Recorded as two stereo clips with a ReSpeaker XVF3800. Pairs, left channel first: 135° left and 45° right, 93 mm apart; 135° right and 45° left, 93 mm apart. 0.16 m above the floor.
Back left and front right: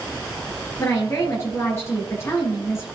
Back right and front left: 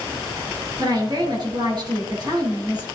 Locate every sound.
0.8 s a woman speaking: 75° left, 3.5 m